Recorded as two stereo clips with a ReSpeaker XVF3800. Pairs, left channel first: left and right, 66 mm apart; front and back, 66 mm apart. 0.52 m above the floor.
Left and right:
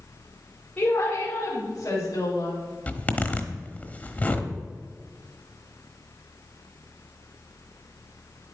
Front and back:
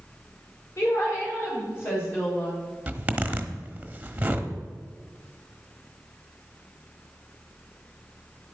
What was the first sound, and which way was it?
A woman speaking, 25° left.